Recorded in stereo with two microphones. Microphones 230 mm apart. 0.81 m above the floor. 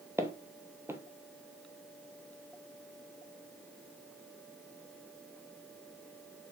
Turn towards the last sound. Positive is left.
turn(degrees=-10)  # may be behind; listen again after turning